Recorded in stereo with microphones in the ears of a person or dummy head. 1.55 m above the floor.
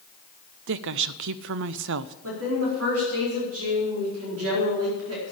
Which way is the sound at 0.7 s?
70° right (ahead or behind).